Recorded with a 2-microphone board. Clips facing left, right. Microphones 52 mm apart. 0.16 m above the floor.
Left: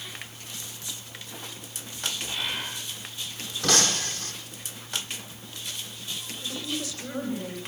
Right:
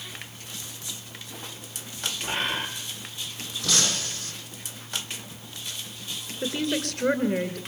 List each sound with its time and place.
2.2 s a bird: 45° right (ahead or behind), 5 m
3.6 s breaking glass: 55° left (ahead or behind), 5 m
6.4 s a woman speaking: 60° right (ahead or behind), 3 m